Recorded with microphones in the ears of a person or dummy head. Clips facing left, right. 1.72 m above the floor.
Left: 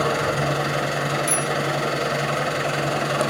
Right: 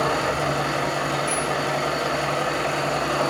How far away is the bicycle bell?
About 2 m.